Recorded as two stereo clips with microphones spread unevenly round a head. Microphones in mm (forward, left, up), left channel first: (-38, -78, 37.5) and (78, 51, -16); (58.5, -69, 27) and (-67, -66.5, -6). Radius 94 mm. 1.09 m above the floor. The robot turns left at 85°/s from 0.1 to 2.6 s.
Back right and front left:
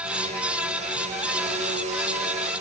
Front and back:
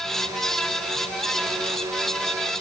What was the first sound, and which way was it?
Only background noise.